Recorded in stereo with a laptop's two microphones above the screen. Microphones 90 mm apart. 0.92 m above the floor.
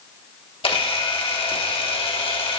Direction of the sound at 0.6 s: 85° left.